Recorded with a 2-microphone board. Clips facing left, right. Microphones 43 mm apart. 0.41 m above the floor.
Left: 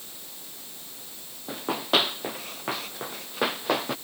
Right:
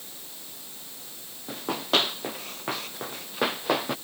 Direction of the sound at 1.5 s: 10° left (ahead or behind).